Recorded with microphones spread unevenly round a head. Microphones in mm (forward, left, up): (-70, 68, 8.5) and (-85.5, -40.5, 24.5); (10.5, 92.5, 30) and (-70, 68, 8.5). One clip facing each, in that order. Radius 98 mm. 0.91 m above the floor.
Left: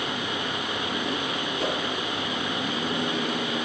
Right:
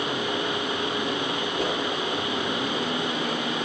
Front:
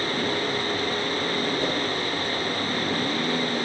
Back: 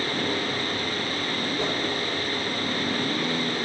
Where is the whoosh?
140° right, 10 m.